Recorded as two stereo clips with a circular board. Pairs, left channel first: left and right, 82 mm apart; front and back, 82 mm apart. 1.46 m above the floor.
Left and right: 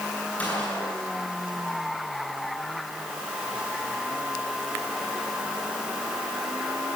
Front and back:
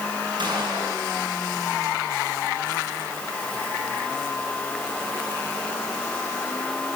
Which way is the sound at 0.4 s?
165° left.